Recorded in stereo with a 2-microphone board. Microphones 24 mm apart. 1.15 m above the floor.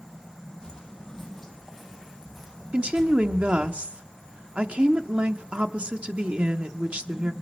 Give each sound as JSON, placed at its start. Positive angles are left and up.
{"t": 0.6, "sound": "footsteps", "side_deg": 30, "distance_m": 1.7}
{"t": 2.7, "sound": "a woman speaking", "side_deg": -65, "distance_m": 0.7}